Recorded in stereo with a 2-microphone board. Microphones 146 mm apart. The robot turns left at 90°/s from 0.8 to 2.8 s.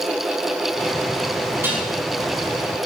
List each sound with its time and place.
1.6 s dishes clattering: 15° right (ahead or behind), 5.5 m; by 1.9 s 5° left (ahead or behind), 5.5 m